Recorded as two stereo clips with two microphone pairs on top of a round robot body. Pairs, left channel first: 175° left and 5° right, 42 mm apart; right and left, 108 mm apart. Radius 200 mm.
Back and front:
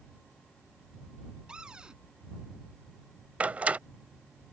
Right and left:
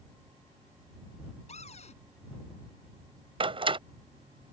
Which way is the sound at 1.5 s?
80° right.